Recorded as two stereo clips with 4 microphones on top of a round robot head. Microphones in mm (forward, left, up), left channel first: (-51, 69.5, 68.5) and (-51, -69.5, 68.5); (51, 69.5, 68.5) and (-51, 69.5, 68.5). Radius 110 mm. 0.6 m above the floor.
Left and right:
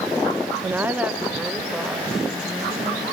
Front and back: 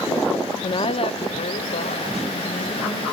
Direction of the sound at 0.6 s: 20° right.